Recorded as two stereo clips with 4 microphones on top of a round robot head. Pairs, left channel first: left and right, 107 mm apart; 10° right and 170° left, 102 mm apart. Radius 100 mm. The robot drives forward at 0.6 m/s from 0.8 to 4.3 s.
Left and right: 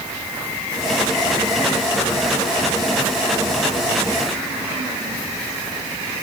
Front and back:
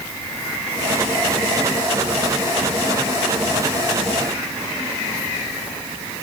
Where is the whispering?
No whispering in this recording.